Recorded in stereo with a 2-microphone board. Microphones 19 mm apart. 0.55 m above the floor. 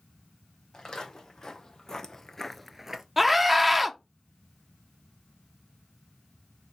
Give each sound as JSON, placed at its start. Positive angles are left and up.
{"t": 0.7, "sound": "footsteps", "side_deg": 40, "distance_m": 2.0}
{"t": 3.2, "sound": "a scream", "side_deg": -5, "distance_m": 0.7}